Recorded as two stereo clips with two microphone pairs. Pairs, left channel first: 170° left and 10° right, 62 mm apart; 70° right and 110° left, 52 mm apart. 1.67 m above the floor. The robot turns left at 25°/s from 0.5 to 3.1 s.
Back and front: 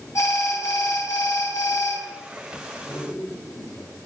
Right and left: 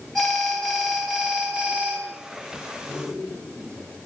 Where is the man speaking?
120° left, 8.5 m; by 4.0 s 115° left, 8.5 m.